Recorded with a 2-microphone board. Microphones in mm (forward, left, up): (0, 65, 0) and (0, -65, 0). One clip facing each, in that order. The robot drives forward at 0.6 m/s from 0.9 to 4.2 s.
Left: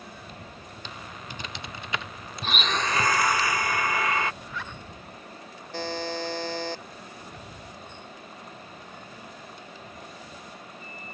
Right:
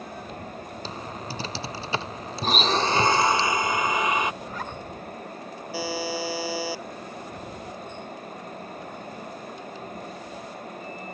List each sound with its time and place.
0.8 s typing on a keyboard: 35° right (ahead or behind); by 3.4 s 30° right (ahead or behind)
2.4 s a blender: 40° right (ahead or behind); by 4.3 s 20° right (ahead or behind)
4.4 s a zipper: 40° right (ahead or behind)
5.7 s a buzzer: 5° right (ahead or behind)